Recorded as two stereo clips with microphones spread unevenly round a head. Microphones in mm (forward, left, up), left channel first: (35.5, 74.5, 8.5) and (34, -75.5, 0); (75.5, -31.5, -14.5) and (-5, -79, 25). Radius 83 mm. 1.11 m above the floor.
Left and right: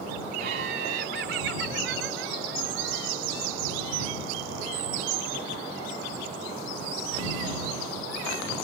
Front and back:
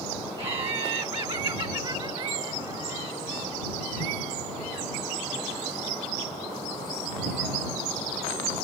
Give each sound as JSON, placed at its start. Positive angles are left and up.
{"t": 0.4, "sound": "laughter", "azimuth_deg": -130}